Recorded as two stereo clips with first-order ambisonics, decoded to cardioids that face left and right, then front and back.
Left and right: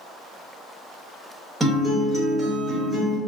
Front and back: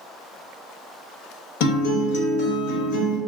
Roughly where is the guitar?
Ahead.